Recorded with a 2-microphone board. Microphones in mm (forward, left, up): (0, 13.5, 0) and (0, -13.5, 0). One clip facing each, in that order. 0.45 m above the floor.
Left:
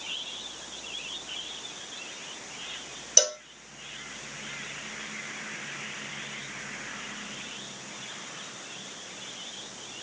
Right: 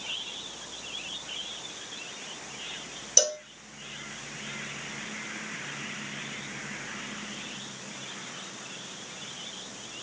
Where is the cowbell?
15° left (ahead or behind), 0.6 m.